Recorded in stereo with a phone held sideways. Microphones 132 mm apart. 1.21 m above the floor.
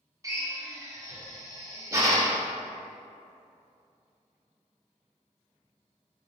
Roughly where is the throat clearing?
I don't hear throat clearing.